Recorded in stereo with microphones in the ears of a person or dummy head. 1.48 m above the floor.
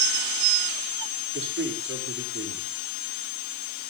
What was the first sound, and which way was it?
A man speaking, 60° right (ahead or behind).